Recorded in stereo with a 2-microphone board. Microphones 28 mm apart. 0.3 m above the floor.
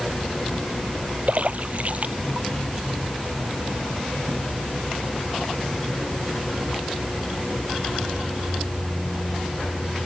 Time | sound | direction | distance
1.3 | a splash | 50° right (ahead or behind) | ?